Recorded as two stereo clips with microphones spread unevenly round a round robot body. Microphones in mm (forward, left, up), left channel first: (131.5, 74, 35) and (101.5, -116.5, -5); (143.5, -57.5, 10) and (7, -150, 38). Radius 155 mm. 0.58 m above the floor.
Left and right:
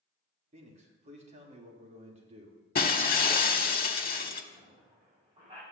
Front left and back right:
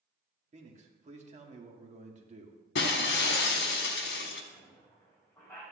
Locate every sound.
0.5 s a man speaking: 110° right, 1.7 m
2.8 s breaking glass: 40° left, 1.1 m
4.5 s a squeak: 40° right, 4.5 m